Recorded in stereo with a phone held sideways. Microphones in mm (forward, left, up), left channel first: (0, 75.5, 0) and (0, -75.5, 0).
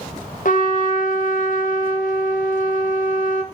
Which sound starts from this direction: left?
A trumpet, at 0.5 s.